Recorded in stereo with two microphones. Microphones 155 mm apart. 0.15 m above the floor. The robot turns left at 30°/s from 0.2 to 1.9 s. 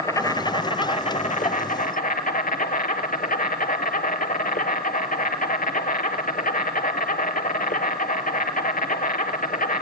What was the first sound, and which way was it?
An insect, 155° left.